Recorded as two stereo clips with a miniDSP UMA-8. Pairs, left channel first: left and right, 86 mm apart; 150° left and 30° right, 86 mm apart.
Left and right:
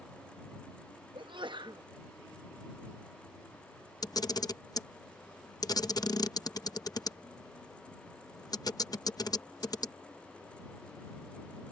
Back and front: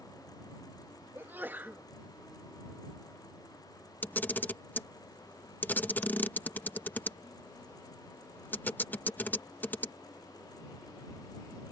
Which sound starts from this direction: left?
A camera shutter, at 4.0 s.